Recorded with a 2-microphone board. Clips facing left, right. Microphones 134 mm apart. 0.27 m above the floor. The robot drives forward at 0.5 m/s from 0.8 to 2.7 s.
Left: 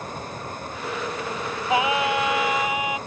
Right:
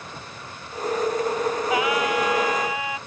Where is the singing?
25° left (ahead or behind); by 3.0 s 20° left (ahead or behind).